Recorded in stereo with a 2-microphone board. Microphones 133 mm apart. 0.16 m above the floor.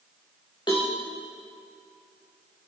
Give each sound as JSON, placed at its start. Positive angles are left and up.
{"t": 0.7, "sound": "a cowbell", "side_deg": 35, "distance_m": 6.0}